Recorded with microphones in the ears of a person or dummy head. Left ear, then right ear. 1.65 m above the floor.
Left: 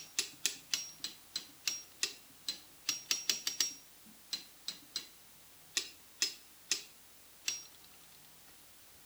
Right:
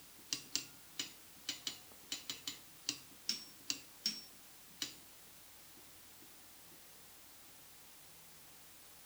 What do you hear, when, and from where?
Only background noise.